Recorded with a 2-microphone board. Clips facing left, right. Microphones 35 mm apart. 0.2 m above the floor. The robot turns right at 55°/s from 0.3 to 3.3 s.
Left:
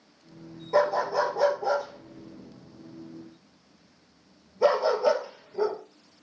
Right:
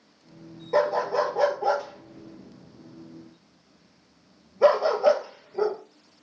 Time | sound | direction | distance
0.7 | a dog barking | 15° right (ahead or behind) | 1.1 m